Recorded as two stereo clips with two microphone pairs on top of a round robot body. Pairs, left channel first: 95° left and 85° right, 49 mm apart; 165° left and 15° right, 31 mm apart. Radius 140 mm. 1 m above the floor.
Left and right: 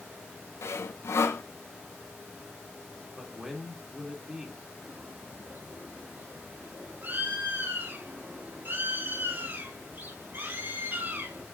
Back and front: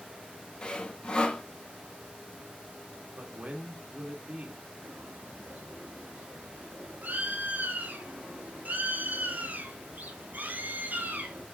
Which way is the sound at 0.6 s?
105° left.